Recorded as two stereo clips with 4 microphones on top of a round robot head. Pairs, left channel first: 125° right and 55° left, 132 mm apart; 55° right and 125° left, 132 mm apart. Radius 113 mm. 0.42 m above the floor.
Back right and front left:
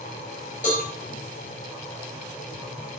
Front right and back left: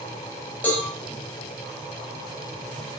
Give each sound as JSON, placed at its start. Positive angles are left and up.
{"t": 0.6, "sound": "a cowbell", "azimuth_deg": -130, "distance_m": 3.0}